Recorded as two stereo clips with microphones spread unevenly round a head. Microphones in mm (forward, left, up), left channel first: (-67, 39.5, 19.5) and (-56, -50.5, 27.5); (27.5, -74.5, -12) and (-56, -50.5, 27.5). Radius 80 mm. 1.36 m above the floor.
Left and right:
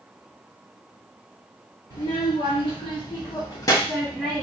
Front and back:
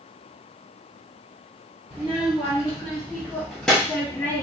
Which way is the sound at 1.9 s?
105° left.